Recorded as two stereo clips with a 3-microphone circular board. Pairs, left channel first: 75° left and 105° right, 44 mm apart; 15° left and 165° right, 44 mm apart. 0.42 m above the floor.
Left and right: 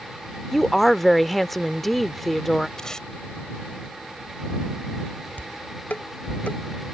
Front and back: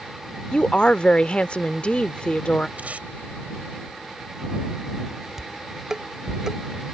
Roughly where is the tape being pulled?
Behind left.